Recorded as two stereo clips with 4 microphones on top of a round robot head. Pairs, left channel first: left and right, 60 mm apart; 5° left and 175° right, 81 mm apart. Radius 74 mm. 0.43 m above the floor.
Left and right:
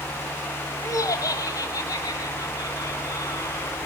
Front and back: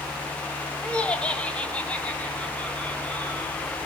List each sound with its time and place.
0.8 s laughter: 80° left, 2.5 m; by 3.8 s 75° left, 6.5 m